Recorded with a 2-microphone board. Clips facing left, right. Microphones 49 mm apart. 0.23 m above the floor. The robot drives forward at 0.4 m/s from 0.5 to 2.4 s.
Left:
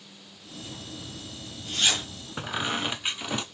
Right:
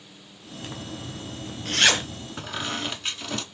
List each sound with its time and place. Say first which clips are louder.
0.6 s a zipper: right 5 dB; 75° right (ahead or behind), 0.8 m; by 2.3 s 55° right (ahead or behind), 1.0 m
2.4 s a squeak: left 2 dB; 15° left (ahead or behind), 0.5 m